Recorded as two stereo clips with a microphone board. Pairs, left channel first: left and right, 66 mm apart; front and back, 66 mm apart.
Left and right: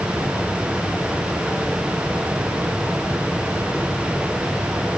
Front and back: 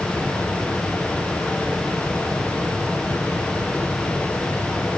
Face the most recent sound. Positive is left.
No sound to turn to.